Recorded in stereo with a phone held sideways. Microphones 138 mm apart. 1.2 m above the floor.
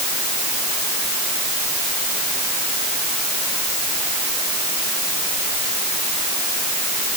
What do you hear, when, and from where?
Only background noise.